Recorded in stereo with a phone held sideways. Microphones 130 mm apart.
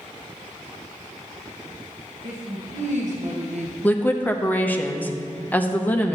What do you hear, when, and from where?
2.2 s a woman speaking: 60° right (ahead or behind), 1.5 m; by 3.7 s 55° right (ahead or behind), 0.7 m
3.8 s a woman speaking: 10° left (ahead or behind), 0.7 m